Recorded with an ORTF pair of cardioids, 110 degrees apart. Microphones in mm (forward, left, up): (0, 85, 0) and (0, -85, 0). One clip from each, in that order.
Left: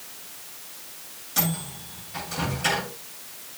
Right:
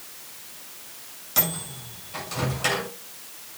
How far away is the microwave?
About 6.5 m.